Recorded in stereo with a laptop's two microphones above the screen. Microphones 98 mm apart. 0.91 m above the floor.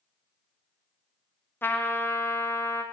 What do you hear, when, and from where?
1.6 s a trumpet: 20° left (ahead or behind), 0.9 m